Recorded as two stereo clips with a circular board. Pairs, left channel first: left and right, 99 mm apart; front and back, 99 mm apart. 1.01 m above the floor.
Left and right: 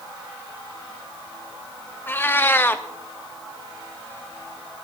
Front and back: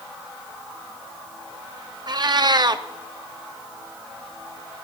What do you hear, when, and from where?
2.1 s a cat meowing: 155° left, 0.6 m